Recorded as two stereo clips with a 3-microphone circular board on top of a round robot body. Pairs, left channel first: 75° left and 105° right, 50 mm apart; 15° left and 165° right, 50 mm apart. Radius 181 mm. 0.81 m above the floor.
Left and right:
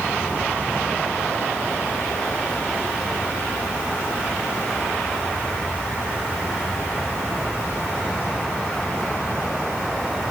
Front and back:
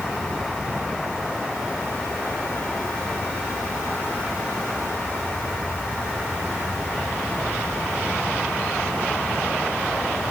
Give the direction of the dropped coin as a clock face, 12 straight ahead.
No dropped coin in this recording.